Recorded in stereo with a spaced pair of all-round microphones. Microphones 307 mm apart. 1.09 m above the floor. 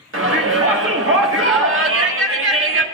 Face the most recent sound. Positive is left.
turn(degrees=-45)  # may be behind; listen again after turning